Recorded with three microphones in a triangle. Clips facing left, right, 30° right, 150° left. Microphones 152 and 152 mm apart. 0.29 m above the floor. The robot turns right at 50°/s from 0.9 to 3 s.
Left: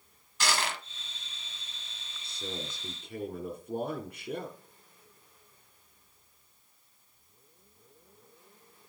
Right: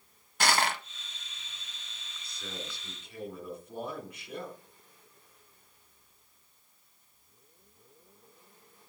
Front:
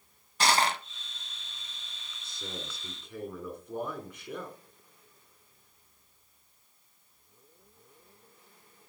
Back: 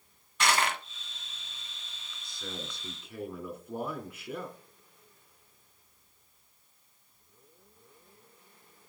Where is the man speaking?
30° left, 3 m; by 4.6 s 65° left, 3 m.